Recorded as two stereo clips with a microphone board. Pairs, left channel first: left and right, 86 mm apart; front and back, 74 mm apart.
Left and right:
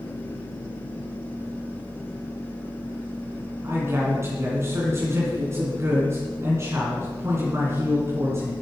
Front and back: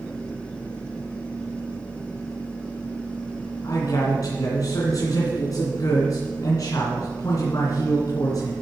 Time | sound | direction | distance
3.6 | a man speaking | 35° right | 3 m